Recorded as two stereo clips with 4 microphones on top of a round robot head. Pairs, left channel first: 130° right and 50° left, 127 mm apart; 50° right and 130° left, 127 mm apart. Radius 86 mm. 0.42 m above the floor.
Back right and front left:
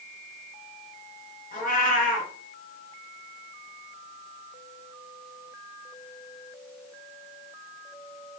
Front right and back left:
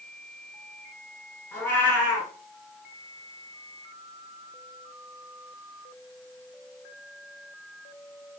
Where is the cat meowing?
120° right, 2 m.